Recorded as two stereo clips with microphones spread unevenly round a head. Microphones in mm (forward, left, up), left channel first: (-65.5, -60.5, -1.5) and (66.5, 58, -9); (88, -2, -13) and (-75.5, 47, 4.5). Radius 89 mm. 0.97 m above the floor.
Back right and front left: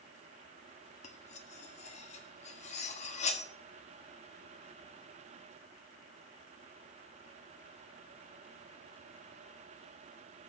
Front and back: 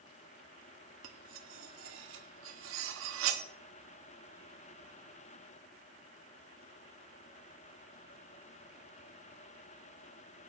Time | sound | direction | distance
1.0 | cutlery clinking | 165° left | 0.9 m